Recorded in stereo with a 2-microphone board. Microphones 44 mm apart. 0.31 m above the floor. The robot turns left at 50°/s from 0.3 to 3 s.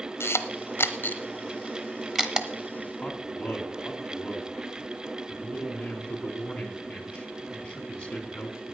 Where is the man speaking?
25° left (ahead or behind), 3 m.